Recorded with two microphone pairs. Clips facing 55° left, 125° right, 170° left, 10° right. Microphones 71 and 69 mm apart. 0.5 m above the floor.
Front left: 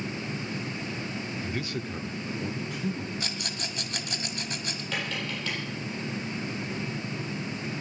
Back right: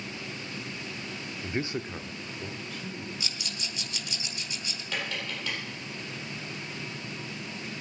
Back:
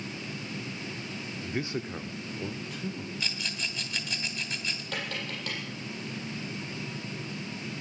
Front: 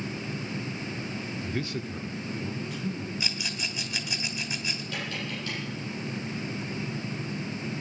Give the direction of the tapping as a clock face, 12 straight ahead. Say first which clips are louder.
Front left 1 dB, even; 7 o'clock.